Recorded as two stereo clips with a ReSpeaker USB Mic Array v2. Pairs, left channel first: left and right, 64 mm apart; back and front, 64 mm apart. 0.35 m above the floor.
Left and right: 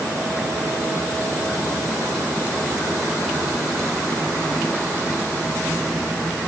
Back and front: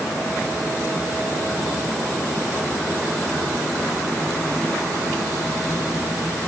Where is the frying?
I don't hear frying.